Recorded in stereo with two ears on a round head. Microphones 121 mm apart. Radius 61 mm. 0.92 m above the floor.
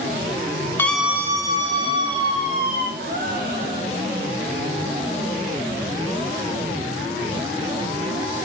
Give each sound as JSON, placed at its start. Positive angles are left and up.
{"t": 0.8, "sound": "a scream", "side_deg": 15, "distance_m": 0.6}
{"t": 3.0, "sound": "a gasp", "side_deg": -70, "distance_m": 2.0}